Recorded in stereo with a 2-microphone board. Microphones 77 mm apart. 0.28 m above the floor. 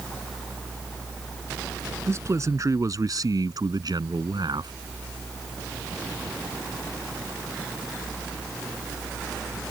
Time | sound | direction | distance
2.1 | a man speaking | 40° right (ahead or behind) | ?